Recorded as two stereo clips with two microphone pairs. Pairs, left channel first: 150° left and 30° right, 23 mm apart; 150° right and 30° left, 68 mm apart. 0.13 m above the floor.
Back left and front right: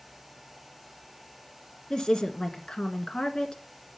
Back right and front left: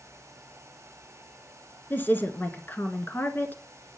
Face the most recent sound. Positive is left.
turn(degrees=175)